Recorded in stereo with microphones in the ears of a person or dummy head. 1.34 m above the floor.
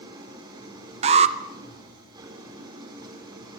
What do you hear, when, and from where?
0.0 s an engine running: 25° right (ahead or behind), 4 m
1.0 s an alarm: 30° right (ahead or behind), 1.0 m